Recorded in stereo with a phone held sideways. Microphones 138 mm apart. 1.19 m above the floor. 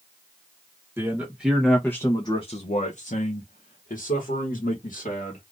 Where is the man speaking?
15° right (ahead or behind), 1.0 m; by 5.4 s 75° left (ahead or behind), 1.9 m.